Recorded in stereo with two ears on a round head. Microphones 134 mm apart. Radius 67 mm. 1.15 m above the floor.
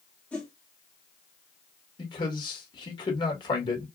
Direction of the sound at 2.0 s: 30° left (ahead or behind).